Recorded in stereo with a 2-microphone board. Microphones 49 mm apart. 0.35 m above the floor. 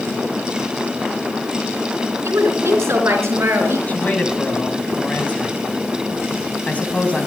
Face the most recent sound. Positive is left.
turn(degrees=30)  # may be behind; listen again after turning